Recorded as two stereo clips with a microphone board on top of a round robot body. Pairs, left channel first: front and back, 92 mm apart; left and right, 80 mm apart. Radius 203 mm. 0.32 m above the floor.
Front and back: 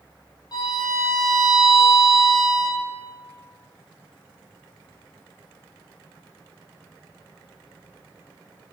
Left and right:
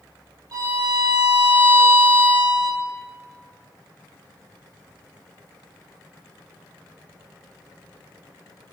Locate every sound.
0.5 s a violin: 45° right, 3.5 m